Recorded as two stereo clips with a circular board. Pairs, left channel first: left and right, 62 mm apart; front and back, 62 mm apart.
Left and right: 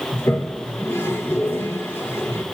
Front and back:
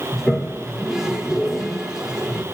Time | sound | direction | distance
0.1 | a toilet flushing | 105° left | 1.3 m